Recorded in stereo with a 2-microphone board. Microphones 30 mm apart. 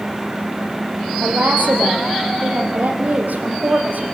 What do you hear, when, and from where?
1.2 s a woman speaking: 75° right (ahead or behind), 4.5 m